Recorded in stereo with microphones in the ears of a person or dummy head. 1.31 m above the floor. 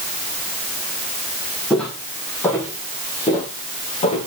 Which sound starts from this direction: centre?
Footsteps, at 1.7 s.